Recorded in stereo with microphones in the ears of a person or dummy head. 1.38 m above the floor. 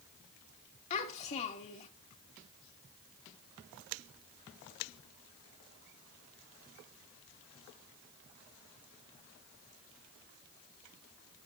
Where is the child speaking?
35° left (ahead or behind), 2.0 m.